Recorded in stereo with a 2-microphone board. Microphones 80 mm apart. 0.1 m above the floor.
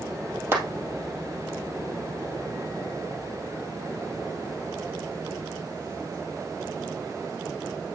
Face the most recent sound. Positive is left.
turn(degrees=-30)  # may be behind; listen again after turning